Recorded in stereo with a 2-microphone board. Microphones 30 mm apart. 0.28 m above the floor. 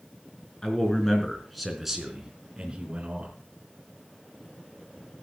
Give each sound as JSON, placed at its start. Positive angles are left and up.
{"t": 0.6, "sound": "a man speaking", "side_deg": 20, "distance_m": 4.0}